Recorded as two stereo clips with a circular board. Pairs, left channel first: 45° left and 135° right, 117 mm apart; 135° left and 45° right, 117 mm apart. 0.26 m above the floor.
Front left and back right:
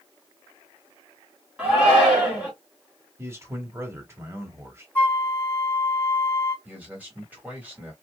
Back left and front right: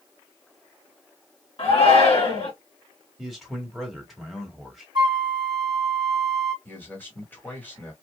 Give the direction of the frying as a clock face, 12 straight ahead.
No frying in this recording.